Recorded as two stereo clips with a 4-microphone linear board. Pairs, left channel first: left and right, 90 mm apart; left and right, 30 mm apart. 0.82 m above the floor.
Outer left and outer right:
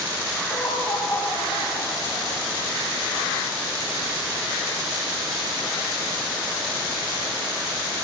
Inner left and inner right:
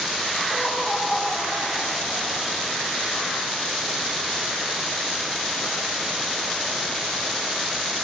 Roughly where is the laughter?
Left.